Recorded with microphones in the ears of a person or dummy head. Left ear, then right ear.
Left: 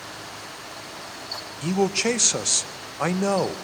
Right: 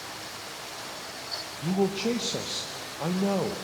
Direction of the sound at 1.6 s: 60° left (ahead or behind).